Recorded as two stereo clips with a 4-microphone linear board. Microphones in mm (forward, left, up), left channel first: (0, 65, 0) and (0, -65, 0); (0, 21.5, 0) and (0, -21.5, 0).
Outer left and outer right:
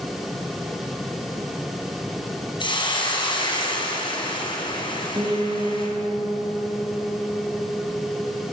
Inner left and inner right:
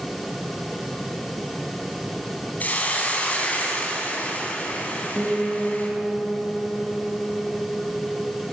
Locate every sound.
2.6 s a hiss: 40° left (ahead or behind), 5 m
5.2 s a piano: 25° right (ahead or behind), 5.5 m